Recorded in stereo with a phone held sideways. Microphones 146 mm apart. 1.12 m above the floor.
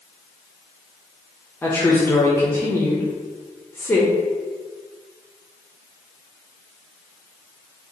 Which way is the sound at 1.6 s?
15° left (ahead or behind).